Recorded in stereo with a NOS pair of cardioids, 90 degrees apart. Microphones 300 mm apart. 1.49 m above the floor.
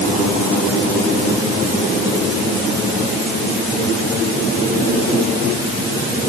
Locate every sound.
Only background noise.